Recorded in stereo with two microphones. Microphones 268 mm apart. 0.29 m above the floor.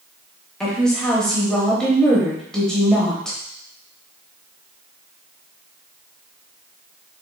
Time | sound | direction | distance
0.6 | a woman speaking | 5° left (ahead or behind) | 0.9 m